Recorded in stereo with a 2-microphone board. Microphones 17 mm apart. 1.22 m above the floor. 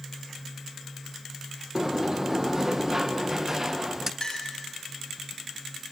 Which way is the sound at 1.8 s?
25° right (ahead or behind).